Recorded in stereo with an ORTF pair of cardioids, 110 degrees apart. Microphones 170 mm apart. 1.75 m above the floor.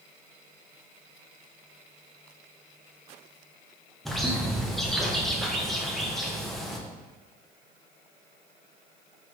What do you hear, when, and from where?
4.0 s a bird: straight ahead, 1.1 m